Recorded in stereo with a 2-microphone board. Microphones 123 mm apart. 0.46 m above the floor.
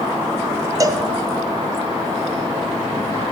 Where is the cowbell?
30° right (ahead or behind), 0.6 m.